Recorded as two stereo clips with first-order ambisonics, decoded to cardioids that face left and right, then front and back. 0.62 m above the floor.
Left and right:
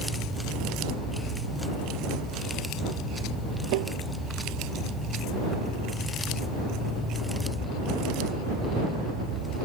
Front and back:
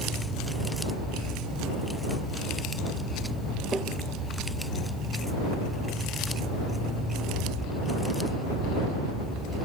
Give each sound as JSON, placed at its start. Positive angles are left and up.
{"t": 3.7, "sound": "tapping", "azimuth_deg": -100}